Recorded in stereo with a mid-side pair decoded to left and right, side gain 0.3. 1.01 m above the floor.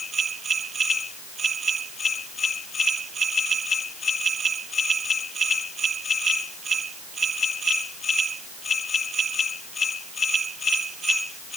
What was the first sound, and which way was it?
Only background noise.